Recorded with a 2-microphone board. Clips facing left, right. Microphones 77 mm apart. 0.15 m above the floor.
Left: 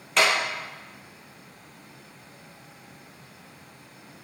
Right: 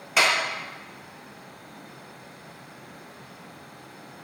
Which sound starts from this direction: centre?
A clap, at 0.2 s.